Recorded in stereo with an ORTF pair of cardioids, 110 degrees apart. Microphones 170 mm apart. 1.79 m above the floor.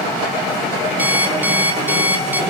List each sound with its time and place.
1.0 s an alarm clock: 10° right, 7 m